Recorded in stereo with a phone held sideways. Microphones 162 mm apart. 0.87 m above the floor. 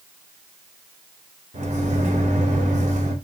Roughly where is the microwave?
Right.